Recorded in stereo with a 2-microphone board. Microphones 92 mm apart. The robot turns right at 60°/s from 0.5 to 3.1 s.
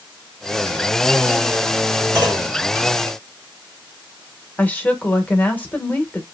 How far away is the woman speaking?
About 0.8 m.